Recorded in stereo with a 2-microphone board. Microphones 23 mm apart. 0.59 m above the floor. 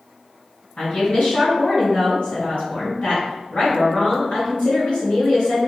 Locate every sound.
0.8 s a woman speaking: 70° left (ahead or behind), 1.9 m